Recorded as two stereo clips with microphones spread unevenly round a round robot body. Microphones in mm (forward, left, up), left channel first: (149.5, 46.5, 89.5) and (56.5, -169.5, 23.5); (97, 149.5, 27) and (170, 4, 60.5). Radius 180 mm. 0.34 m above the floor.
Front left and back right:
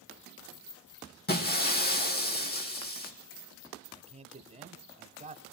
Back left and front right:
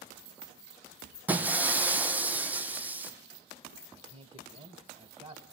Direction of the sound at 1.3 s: 15° left.